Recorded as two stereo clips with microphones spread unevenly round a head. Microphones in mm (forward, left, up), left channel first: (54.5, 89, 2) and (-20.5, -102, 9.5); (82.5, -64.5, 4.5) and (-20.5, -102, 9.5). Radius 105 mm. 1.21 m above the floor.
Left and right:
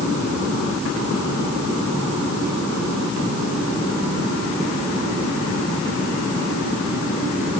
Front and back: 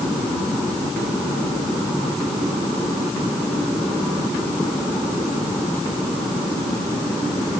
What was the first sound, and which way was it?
Only background noise.